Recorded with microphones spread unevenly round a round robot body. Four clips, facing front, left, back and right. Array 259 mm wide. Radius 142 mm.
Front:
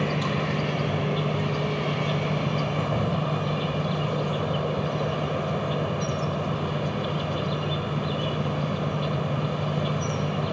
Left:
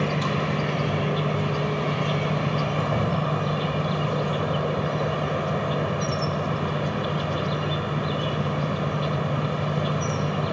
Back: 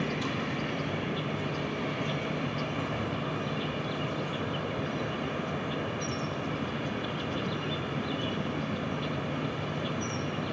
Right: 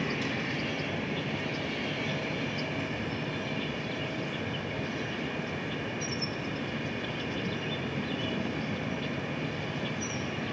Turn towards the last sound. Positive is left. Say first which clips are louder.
# left 8 dB, front 5 dB
turn(degrees=55)